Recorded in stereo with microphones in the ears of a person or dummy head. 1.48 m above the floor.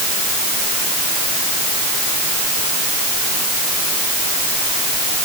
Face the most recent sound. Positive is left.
No sound to turn to.